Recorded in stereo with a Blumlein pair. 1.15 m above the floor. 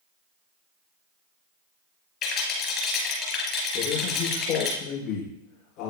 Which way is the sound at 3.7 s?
35° left.